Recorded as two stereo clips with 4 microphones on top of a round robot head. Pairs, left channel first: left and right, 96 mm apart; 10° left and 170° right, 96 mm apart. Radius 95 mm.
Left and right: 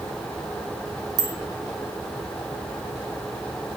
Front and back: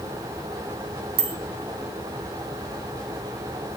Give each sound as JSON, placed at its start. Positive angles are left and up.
{"t": 1.2, "sound": "a bicycle bell", "azimuth_deg": -140, "distance_m": 3.0}